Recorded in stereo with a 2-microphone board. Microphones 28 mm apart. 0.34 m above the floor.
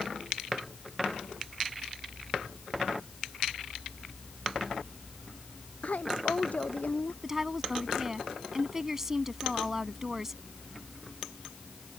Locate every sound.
5.8 s a woman speaking: 65° left (ahead or behind)
7.2 s a woman speaking: 15° right (ahead or behind)